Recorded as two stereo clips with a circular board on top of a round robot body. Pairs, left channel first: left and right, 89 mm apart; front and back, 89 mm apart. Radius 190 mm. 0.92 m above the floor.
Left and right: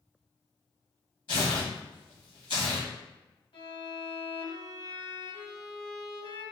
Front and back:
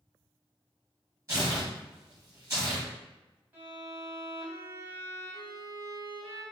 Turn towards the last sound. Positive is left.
turn(degrees=110)